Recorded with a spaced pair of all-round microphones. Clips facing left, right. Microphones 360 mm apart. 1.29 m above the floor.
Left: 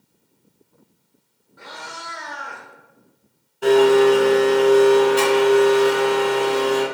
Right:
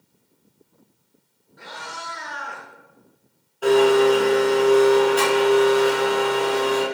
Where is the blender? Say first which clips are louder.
Left 2 dB; 30° left (ahead or behind), 0.8 m.